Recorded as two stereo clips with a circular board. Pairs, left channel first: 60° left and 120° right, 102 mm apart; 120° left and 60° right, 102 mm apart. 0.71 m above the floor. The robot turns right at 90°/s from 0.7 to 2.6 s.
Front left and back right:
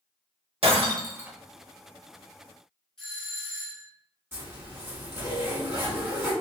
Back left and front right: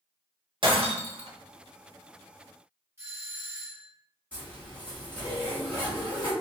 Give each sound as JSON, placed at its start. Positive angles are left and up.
{"t": 0.6, "sound": "breaking glass", "azimuth_deg": -95, "distance_m": 0.7}
{"t": 3.0, "sound": "a doorbell", "azimuth_deg": -20, "distance_m": 1.7}
{"t": 4.3, "sound": "a zipper", "azimuth_deg": -170, "distance_m": 1.2}